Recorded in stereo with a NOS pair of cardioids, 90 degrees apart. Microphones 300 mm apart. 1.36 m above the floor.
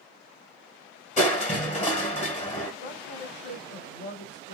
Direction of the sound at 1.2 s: 25° left.